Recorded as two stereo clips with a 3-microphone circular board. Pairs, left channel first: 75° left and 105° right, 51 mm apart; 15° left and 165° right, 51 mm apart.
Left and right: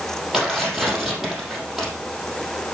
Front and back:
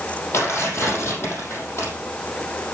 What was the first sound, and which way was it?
Tearing paper, 25° right.